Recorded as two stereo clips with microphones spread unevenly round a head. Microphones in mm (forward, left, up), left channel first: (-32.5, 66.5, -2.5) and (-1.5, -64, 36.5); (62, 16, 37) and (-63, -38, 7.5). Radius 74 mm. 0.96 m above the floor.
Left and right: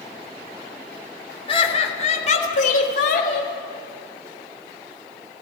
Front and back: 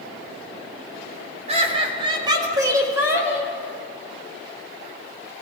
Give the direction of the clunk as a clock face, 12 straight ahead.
I don't hear a clunk.